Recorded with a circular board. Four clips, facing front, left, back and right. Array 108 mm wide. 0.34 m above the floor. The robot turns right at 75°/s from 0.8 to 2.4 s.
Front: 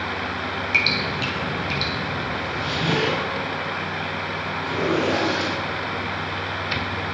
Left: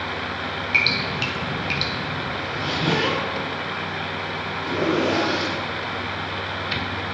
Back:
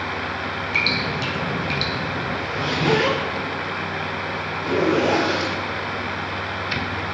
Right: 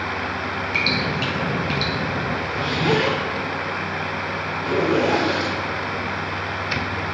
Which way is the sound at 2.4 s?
135° right.